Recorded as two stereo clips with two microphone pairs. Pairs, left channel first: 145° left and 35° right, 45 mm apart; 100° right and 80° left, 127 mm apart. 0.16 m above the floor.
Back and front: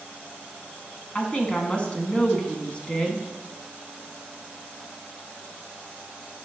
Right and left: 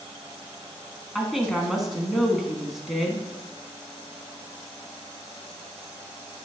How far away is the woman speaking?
About 1.2 m.